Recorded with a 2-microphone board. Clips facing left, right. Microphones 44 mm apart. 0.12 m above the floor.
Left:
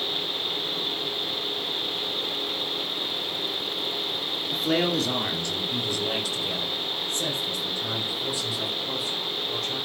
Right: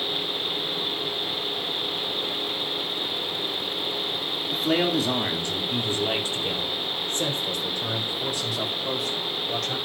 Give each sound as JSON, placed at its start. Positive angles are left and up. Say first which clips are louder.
{"t": 4.5, "sound": "a man speaking", "louder": "right 1 dB", "side_deg": 0, "distance_m": 2.0}